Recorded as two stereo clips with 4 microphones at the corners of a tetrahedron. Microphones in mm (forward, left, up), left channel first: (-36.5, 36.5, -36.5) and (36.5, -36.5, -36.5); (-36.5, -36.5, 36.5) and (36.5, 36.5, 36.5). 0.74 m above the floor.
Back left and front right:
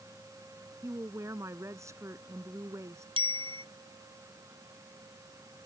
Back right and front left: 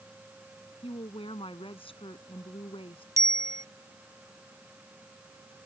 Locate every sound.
0.8 s a woman speaking: 105° right
3.2 s a bicycle bell: 15° right